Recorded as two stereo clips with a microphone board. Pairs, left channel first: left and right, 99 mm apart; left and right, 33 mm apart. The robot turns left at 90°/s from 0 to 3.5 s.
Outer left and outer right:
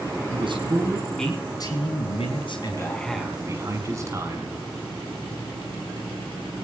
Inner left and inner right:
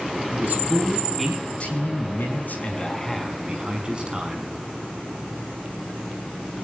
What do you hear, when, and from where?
0.3 s a man speaking: 105° right, 5 m; by 4.5 s 30° right, 5 m